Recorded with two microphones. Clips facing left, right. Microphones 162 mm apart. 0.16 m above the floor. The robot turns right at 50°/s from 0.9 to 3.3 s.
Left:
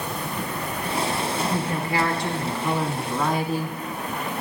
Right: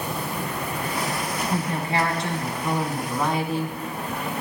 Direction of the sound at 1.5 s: 25° right (ahead or behind).